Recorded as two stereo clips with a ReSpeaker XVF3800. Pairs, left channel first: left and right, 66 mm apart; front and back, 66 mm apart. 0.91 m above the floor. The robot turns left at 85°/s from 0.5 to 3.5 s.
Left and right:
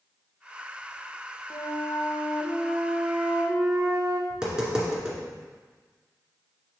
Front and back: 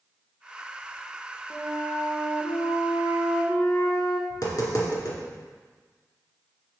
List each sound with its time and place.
1.5 s a flute: 120° left, 0.9 m; by 4.2 s 50° right, 0.9 m
4.3 s tapping: 15° right, 2 m